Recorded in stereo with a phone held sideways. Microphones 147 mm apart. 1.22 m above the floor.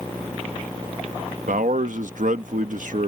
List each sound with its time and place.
1.5 s a man speaking: 70° right (ahead or behind)